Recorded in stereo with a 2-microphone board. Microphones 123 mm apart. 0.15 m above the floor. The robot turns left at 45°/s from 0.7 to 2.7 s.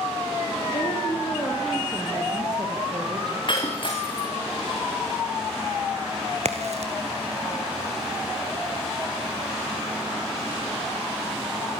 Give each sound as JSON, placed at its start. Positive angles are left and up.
{"t": 0.7, "sound": "a woman speaking", "azimuth_deg": 45, "distance_m": 5.0}
{"t": 3.5, "sound": "breaking glass", "side_deg": 45, "distance_m": 4.5}
{"t": 6.5, "sound": "a crack", "side_deg": -65, "distance_m": 1.9}